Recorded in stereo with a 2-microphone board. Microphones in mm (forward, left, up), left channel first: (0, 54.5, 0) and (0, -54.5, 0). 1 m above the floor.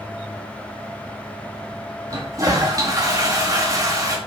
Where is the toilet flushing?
35° right (ahead or behind), 2 m.